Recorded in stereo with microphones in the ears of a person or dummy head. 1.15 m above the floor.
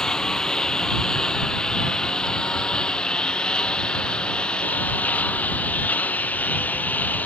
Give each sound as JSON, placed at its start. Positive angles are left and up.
{"t": 0.0, "sound": "a lawn mower", "side_deg": 0}